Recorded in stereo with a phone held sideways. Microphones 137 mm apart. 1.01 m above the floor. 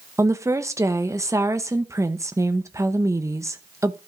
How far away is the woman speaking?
About 0.8 m.